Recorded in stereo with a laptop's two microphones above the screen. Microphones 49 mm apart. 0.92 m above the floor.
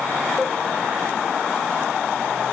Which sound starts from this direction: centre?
A cowbell, at 0.4 s.